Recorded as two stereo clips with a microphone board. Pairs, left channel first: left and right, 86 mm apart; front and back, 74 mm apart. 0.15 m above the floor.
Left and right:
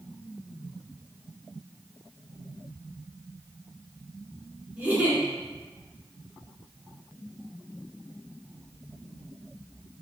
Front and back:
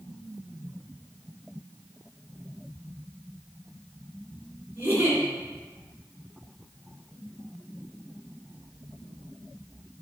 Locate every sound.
4.8 s a giggle: 145° right, 1.1 m